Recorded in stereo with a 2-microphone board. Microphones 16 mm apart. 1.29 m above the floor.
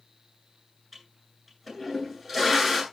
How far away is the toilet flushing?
About 10 m.